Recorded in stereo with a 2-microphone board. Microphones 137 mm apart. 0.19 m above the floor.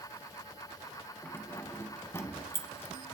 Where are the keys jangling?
15° left (ahead or behind), 1.1 m.